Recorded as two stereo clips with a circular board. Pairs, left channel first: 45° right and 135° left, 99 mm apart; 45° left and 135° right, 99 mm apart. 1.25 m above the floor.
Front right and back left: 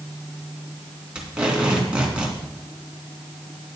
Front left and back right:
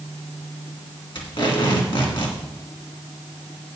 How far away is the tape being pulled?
About 2.5 m.